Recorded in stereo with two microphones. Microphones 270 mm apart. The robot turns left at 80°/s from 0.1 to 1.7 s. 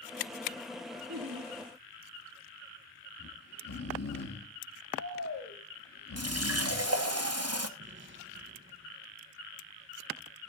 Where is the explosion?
45° right (ahead or behind), 1.3 m.